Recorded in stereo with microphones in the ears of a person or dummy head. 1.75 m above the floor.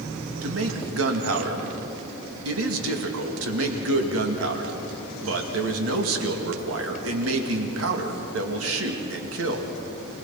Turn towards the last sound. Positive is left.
turn(degrees=-80)